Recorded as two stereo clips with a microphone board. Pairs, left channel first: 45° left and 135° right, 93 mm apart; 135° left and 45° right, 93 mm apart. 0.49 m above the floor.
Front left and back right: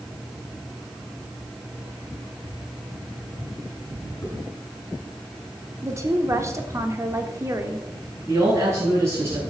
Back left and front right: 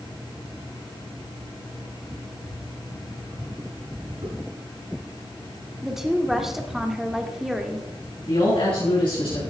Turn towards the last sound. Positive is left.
turn(degrees=165)